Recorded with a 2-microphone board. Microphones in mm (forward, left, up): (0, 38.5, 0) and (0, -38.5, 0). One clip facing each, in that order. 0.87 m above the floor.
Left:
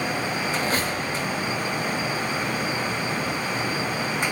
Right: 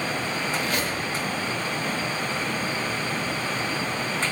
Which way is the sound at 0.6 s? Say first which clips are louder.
Left 2 dB; 35° left (ahead or behind).